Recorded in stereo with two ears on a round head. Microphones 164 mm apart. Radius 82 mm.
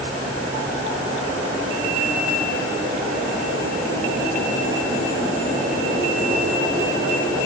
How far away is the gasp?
No gasp in this recording.